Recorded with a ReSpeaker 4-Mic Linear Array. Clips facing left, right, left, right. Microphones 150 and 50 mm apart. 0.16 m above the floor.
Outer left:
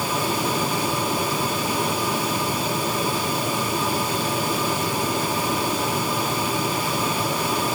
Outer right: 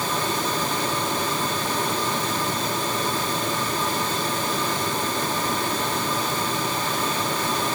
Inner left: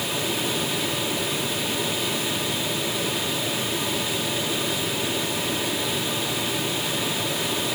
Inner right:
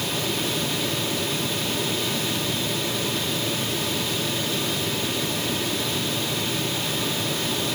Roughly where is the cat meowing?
No cat meowing in this recording.